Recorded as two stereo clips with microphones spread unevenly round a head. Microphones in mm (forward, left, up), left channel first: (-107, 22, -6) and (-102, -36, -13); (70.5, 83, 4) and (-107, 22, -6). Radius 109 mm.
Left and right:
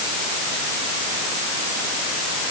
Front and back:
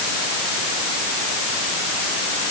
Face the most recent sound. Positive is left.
No sound to turn to.